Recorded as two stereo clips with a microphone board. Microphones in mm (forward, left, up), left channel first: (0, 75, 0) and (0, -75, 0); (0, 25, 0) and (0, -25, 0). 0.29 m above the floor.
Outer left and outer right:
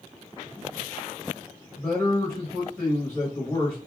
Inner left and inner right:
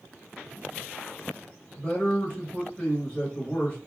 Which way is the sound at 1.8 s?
20° left (ahead or behind).